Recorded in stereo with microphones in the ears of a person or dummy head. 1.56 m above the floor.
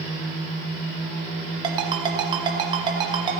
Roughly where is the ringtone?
Right.